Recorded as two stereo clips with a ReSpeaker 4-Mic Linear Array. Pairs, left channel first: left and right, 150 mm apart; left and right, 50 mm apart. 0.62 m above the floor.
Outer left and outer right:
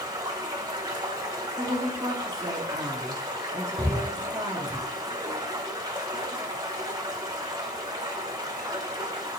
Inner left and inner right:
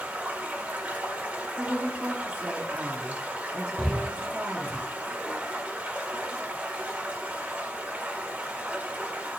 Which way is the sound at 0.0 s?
30° right (ahead or behind).